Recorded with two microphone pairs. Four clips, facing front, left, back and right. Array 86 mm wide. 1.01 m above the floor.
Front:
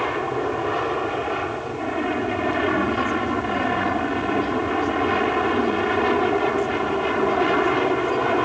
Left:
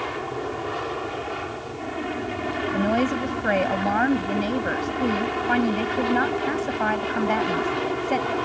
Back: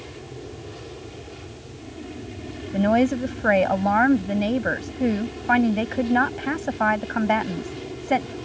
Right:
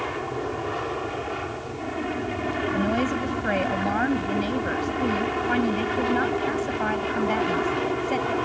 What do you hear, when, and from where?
0.0 s an aircraft: straight ahead
2.7 s a woman speaking: 160° left